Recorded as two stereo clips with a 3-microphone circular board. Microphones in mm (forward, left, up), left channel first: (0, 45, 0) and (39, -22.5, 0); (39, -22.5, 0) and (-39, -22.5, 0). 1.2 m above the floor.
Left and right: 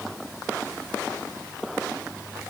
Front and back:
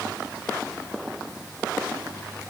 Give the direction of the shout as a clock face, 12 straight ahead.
No shout in this recording.